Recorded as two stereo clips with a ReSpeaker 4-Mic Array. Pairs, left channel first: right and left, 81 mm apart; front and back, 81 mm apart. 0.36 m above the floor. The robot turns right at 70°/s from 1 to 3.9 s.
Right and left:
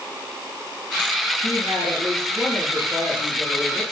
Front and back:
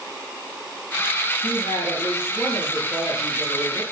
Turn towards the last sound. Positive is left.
turn(degrees=-115)